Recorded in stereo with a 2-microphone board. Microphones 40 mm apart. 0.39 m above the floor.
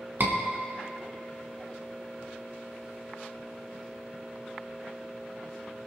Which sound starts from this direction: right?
A scream, at 0.2 s.